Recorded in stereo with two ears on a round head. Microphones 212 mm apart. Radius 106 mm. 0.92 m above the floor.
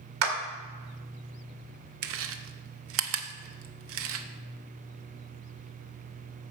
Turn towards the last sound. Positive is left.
turn(degrees=-65)  # may be behind; listen again after turning